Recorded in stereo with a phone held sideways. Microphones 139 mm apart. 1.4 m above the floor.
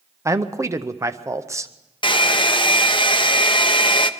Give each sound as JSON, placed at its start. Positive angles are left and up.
{"t": 0.2, "sound": "a man speaking", "side_deg": -20, "distance_m": 0.6}
{"t": 2.0, "sound": "a hair dryer", "side_deg": 35, "distance_m": 0.6}